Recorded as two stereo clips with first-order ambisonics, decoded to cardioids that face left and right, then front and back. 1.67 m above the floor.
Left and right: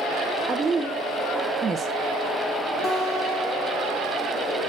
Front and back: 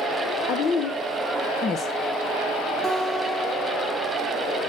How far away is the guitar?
About 1.4 m.